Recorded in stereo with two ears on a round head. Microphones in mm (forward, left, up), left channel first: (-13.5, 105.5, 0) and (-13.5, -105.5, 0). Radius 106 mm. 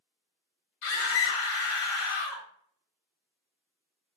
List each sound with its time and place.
0.8 s a scream: 60° left (ahead or behind), 2.5 m